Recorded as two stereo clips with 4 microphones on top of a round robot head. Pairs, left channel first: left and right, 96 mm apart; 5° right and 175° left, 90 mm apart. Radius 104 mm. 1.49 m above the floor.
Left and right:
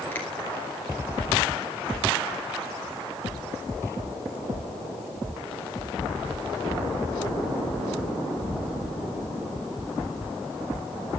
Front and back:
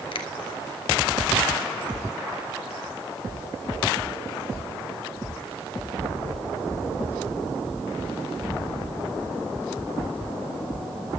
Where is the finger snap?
15° left, 2.5 m.